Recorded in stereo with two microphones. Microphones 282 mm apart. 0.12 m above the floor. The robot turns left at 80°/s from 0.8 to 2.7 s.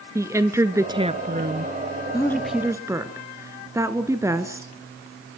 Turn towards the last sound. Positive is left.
turn(degrees=-20)